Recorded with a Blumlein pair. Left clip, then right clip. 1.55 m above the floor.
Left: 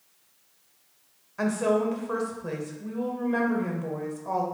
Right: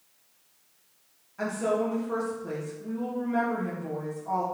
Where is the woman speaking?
70° left, 2.0 m.